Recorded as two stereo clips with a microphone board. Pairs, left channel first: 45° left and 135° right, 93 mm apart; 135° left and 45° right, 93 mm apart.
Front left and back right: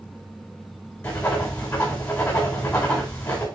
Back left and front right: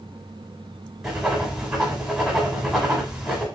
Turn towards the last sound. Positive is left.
turn(degrees=20)